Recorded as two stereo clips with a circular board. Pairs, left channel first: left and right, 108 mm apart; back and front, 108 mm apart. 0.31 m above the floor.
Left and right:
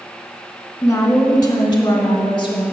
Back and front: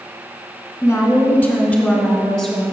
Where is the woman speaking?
130° left, 1.5 m; by 2.6 s 75° left, 1.8 m.